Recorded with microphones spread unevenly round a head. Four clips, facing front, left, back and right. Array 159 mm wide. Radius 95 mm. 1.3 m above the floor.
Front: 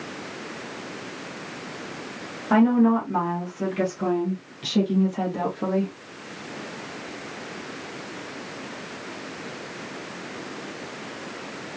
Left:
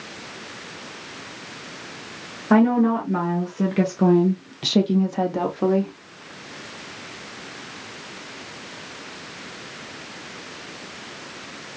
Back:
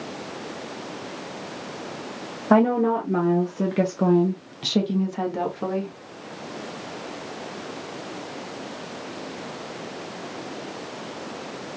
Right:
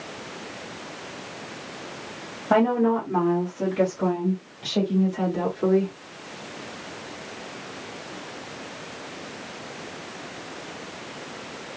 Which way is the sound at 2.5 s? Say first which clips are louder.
Left 3 dB, even; 175° right.